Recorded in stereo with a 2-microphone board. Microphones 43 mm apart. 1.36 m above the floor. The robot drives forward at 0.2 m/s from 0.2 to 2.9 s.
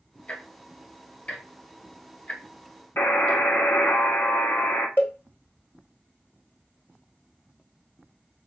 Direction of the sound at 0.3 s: 30° left (ahead or behind).